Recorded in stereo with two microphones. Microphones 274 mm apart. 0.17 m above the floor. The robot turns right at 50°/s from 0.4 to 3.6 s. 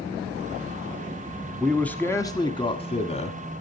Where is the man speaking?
Centre (ahead or behind), 1.1 m; by 3.6 s 25° left (ahead or behind), 1.1 m.